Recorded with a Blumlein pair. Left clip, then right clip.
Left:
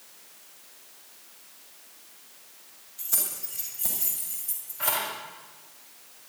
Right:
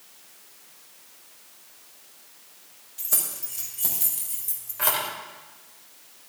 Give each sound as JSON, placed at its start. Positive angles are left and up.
{"t": 3.0, "sound": "keys jangling", "azimuth_deg": -60, "distance_m": 6.0}